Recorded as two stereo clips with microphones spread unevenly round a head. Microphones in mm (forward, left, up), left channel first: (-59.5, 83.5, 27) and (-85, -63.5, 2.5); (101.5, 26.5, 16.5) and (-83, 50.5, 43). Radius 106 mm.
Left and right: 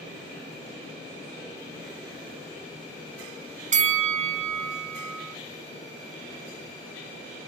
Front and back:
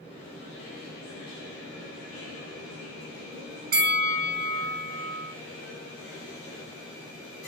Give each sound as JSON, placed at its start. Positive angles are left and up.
{"t": 3.7, "sound": "a bell", "azimuth_deg": -140, "distance_m": 1.0}